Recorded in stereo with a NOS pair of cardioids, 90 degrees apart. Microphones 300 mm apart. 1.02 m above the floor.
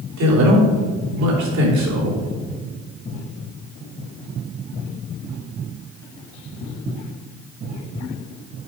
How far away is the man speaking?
About 3.5 m.